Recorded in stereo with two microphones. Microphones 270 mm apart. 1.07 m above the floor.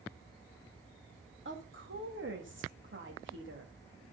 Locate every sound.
1.4 s a woman speaking: 45° right (ahead or behind), 2 m